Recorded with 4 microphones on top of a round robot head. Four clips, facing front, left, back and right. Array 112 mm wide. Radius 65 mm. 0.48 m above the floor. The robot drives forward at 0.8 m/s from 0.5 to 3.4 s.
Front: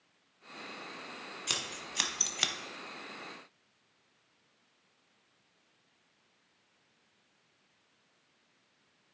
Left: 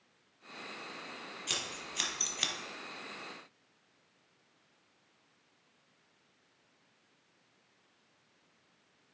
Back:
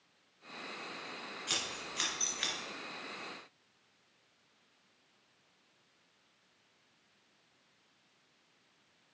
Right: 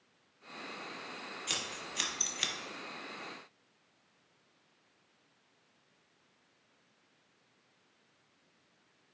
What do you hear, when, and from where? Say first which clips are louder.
1.5 s scissors: left 1 dB, even; 5° left, 1.4 m; by 2.5 s 15° left, 0.5 m